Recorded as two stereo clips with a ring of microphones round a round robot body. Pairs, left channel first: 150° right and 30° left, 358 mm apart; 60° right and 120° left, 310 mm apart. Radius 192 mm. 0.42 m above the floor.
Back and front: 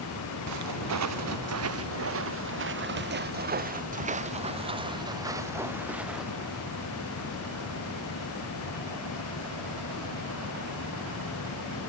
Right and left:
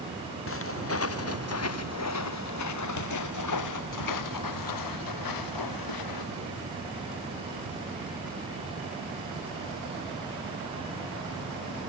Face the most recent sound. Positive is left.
turn(degrees=-60)